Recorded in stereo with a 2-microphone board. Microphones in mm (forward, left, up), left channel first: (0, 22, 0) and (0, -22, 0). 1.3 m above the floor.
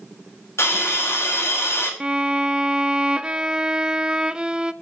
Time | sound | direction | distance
0.6 | a hiss | 75° left (ahead or behind) | 5 m
2.0 | a violin | 20° right (ahead or behind) | 0.6 m